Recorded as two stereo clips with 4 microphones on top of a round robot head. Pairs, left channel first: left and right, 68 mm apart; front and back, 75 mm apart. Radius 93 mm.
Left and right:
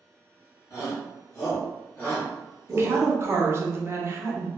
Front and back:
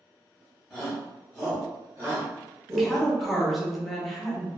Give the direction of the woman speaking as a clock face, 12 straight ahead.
3 o'clock.